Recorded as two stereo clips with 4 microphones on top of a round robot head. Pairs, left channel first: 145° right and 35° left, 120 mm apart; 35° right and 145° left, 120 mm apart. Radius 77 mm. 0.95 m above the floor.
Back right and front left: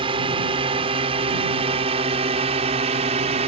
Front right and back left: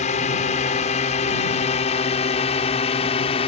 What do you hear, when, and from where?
0.0 s a drone: 10° right; by 3.5 s 5° left